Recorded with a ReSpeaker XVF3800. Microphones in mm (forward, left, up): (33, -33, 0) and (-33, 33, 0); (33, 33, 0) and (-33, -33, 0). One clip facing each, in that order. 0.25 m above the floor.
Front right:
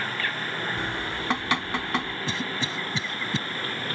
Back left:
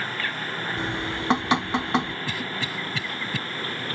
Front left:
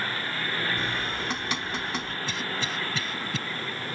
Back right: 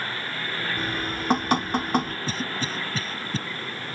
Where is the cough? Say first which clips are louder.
Even, back right 2 dB; 100° right.